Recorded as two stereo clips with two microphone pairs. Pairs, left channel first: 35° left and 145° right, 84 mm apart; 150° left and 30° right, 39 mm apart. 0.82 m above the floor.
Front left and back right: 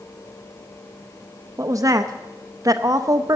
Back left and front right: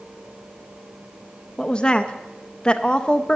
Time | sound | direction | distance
1.6 | a woman speaking | 155° right | 0.5 m